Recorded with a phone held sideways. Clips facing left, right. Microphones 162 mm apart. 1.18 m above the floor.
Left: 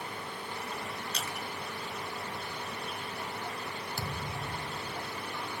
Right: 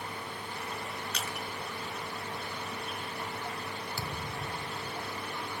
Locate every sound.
1.1 s crushing: 30° left (ahead or behind), 4 m
4.0 s a thud: 50° left (ahead or behind), 1.4 m